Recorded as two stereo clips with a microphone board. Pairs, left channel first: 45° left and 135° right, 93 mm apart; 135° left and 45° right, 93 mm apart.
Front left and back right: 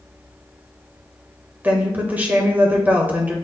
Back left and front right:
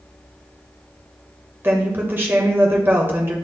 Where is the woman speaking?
85° right, 1.3 m.